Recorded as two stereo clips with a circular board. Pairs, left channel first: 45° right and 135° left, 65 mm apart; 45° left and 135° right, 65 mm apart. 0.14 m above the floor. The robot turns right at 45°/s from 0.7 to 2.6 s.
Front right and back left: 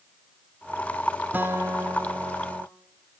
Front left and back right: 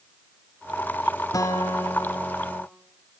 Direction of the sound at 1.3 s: 75° left.